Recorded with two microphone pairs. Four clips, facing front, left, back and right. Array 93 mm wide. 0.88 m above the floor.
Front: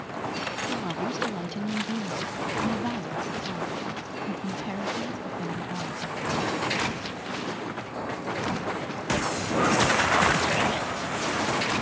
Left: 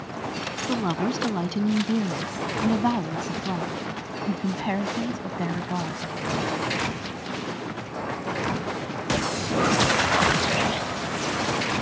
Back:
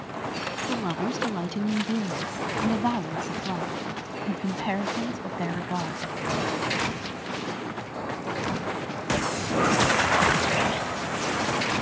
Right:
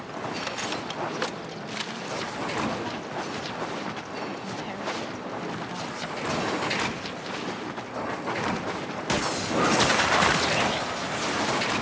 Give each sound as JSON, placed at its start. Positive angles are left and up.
{"t": 0.7, "sound": "a woman speaking", "azimuth_deg": 110}